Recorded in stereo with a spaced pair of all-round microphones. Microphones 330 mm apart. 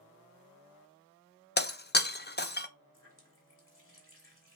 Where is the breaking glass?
30° left (ahead or behind), 0.9 m.